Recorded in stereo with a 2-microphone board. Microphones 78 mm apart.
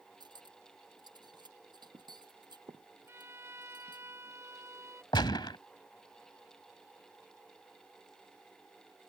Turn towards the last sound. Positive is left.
turn(degrees=85)